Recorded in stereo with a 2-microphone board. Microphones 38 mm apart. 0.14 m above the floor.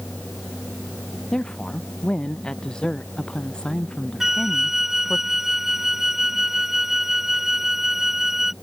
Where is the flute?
10° right (ahead or behind).